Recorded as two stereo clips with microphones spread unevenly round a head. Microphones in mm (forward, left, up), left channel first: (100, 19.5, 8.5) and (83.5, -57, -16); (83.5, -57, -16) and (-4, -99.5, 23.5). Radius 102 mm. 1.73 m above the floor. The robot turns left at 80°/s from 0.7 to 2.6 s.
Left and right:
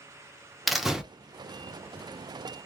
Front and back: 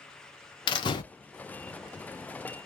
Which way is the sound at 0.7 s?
35° left.